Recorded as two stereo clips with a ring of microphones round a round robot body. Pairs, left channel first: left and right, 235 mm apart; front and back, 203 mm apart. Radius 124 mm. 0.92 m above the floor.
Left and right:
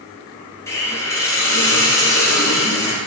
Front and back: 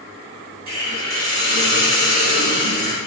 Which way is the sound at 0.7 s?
170° left.